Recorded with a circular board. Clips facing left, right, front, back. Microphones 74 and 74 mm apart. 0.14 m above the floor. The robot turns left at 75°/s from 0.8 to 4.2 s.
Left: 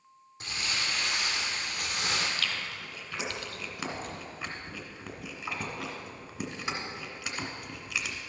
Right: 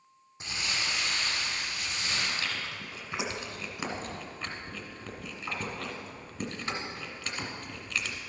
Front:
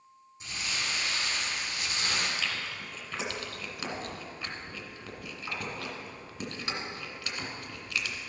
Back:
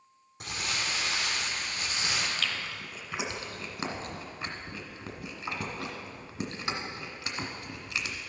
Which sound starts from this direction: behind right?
Crumpling, at 0.4 s.